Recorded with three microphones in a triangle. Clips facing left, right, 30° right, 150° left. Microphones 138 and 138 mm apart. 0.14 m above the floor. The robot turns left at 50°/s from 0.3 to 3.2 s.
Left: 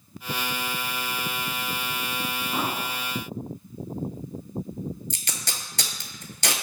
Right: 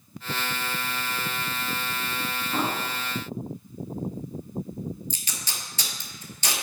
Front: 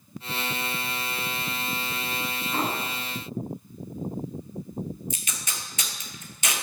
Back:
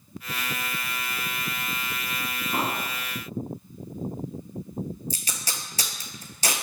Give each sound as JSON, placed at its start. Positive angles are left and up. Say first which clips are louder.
{"t": 2.5, "sound": "an explosion", "louder": "right 2 dB, even", "azimuth_deg": 160, "distance_m": 0.9}
{"t": 5.1, "sound": "tape being pulled", "louder": "left 2 dB, back 1 dB", "azimuth_deg": 100, "distance_m": 0.5}